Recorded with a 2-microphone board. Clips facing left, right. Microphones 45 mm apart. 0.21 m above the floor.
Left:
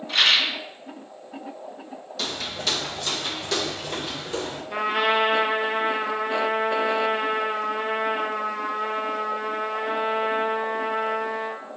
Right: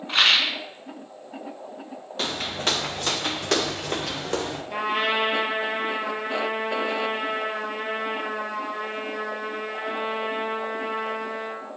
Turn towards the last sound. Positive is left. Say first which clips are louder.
# left 3 dB
turn(degrees=0)  # may be behind; listen again after turning